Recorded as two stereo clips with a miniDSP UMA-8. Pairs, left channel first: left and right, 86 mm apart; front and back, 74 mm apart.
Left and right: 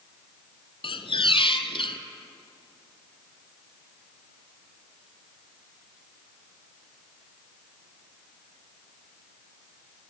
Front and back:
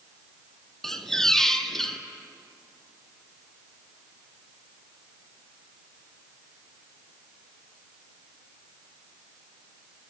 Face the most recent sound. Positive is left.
turn(degrees=85)